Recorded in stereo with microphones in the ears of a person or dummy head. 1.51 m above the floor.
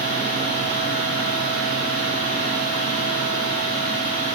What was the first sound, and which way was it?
A fan, 40° left (ahead or behind).